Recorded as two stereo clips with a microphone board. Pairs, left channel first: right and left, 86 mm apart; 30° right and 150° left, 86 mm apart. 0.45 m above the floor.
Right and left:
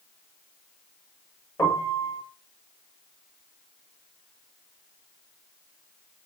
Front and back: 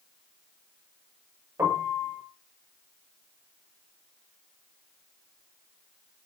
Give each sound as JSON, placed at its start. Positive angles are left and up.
{"t": 1.6, "sound": "a piano", "azimuth_deg": -145, "distance_m": 9.0}